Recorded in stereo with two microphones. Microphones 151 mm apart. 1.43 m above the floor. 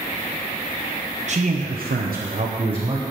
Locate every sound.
1.3 s a man speaking: 50° right (ahead or behind), 1.3 m; by 3.0 s 30° right (ahead or behind), 1.3 m